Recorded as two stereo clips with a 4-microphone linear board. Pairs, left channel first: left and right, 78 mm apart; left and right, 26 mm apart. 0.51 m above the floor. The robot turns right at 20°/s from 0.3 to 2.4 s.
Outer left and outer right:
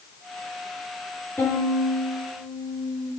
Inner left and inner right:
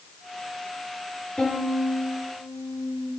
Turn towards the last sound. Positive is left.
turn(degrees=5)  # may be behind; listen again after turning